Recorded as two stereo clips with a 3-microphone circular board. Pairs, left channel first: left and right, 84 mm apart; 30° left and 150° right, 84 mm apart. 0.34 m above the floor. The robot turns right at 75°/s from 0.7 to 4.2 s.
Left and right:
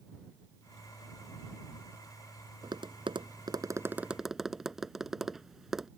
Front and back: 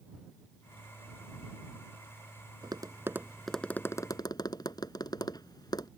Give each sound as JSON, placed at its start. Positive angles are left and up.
{"t": 2.6, "sound": "tapping", "azimuth_deg": -120}